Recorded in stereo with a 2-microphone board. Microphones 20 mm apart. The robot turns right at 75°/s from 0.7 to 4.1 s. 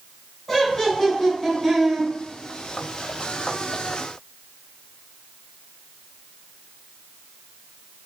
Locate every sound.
0.5 s laughter: 20° left (ahead or behind), 1.1 m; by 2.1 s 15° right (ahead or behind), 1.1 m